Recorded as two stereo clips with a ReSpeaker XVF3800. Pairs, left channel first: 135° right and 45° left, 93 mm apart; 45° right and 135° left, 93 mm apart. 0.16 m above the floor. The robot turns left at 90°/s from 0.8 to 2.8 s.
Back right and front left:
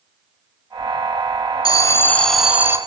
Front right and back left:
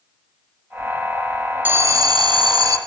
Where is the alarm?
160° right, 1.3 m; by 2.8 s 100° left, 1.3 m.